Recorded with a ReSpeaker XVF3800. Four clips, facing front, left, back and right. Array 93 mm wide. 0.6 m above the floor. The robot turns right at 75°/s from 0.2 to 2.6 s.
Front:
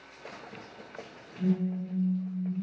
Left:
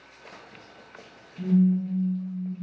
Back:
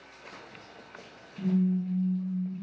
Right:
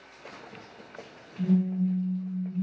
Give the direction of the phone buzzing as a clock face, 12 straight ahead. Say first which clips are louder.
Left 3 dB, back 2 dB; 8 o'clock.